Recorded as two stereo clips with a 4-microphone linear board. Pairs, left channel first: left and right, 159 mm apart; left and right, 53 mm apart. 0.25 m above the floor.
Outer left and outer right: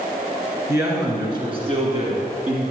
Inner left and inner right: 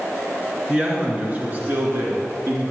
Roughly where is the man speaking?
Centre.